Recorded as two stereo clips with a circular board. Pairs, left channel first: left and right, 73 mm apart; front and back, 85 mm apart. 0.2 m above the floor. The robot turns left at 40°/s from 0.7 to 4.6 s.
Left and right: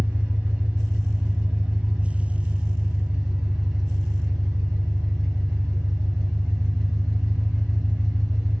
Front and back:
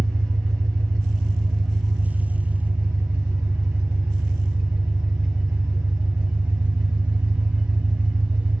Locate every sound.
0.0 s an engine running: 45° right, 1.0 m; by 8.6 s 155° left, 1.0 m